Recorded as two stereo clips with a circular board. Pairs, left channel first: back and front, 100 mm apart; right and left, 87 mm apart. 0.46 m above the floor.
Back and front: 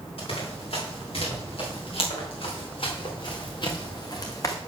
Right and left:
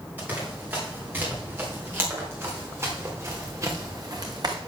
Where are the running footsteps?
160° left, 5.5 m; by 4.6 s 125° left, 1.4 m.